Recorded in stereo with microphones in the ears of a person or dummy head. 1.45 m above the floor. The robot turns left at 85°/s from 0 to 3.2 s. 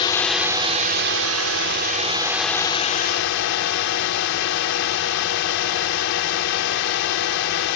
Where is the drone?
30° left; by 7.8 s 115° left.